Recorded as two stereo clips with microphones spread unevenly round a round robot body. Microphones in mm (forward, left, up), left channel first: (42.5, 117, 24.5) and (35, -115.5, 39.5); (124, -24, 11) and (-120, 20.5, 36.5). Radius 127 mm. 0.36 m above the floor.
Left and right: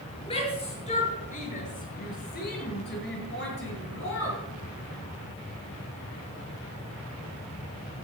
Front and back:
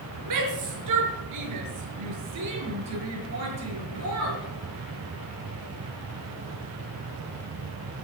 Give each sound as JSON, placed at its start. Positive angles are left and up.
{"t": 0.3, "sound": "a shout", "azimuth_deg": 160, "distance_m": 6.0}